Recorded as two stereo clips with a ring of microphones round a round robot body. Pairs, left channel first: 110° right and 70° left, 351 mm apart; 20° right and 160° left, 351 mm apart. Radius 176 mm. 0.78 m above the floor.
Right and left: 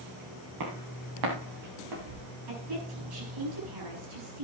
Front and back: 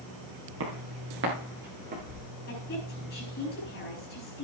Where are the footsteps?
105° left, 6 m; by 2.2 s 90° left, 7 m.